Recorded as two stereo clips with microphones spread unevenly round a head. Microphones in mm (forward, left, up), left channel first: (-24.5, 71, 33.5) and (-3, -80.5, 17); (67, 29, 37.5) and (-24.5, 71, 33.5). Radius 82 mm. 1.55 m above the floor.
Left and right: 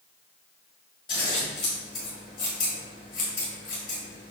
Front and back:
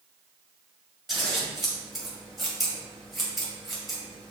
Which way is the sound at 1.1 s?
65° left.